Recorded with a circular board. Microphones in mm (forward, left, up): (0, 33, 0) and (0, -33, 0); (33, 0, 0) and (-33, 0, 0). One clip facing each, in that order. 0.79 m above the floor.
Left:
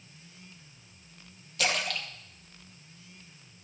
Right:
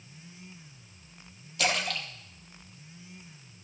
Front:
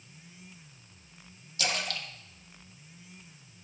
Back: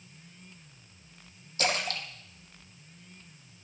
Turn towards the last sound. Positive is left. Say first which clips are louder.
# right 1 dB, back 3 dB
turn(degrees=180)